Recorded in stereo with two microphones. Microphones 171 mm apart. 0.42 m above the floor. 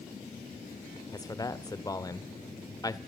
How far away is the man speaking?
About 1.1 m.